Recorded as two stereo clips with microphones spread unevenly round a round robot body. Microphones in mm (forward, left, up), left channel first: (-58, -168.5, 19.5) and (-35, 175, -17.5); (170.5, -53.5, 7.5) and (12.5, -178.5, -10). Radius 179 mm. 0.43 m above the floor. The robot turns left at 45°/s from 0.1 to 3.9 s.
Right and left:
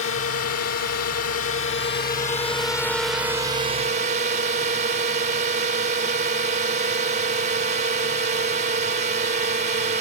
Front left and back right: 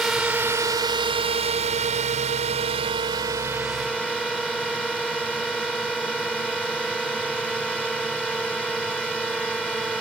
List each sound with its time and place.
0.0 s a drone: 60° right; by 10.0 s 130° left